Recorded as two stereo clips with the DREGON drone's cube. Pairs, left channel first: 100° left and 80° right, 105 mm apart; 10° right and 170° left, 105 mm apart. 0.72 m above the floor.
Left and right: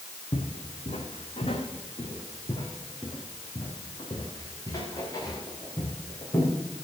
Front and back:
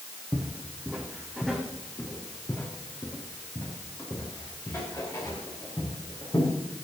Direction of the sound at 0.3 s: 105° left.